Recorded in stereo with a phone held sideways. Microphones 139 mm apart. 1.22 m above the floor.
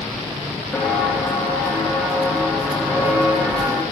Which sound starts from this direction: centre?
Footsteps, at 0.7 s.